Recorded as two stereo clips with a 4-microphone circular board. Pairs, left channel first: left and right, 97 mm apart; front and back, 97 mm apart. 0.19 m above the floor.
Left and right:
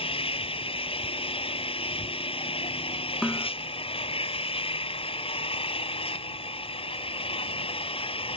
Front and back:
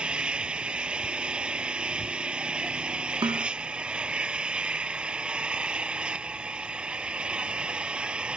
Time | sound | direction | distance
0.0 | an engine running | 100° left | ?
3.2 | a snare drum | 175° left | ?